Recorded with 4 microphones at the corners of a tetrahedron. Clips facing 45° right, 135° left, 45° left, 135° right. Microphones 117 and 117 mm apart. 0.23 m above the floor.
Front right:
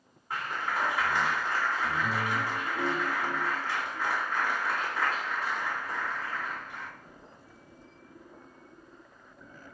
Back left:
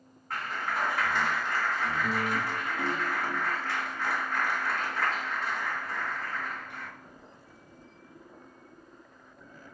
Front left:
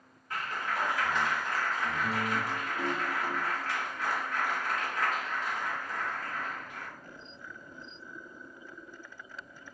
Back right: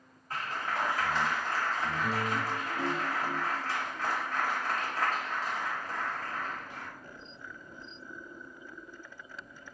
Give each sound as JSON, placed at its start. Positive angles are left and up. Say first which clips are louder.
{"t": 0.3, "sound": "a clap", "louder": "even, even", "azimuth_deg": -115, "distance_m": 1.5}